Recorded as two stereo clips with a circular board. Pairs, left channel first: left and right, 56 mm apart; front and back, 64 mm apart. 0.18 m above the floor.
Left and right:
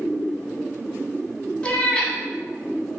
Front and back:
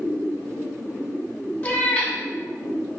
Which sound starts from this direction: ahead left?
A cat meowing, at 1.6 s.